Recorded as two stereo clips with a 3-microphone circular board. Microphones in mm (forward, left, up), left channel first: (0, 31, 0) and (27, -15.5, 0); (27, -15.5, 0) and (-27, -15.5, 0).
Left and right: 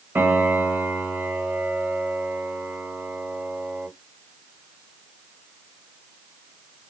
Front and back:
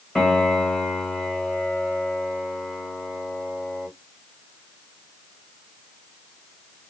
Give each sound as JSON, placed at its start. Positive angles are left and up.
{"t": 0.1, "sound": "a piano", "azimuth_deg": -75, "distance_m": 1.3}